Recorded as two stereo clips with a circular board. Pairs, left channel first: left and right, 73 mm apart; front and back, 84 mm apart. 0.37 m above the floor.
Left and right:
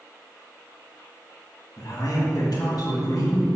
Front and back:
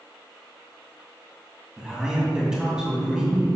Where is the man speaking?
100° left, 2.5 m.